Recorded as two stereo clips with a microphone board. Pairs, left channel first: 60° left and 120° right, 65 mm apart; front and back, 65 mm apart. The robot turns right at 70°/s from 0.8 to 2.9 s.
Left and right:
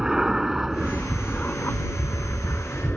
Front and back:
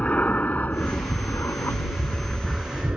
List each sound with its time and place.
0.0 s an aircraft: 45° right; by 3.0 s 120° left